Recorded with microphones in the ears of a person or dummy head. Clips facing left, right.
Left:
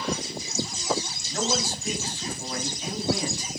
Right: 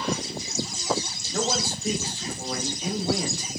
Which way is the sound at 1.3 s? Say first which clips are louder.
Right 1 dB; 80° right.